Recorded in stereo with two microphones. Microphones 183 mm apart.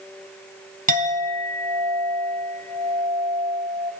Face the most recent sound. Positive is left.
turn(degrees=-45)  # may be behind; listen again after turning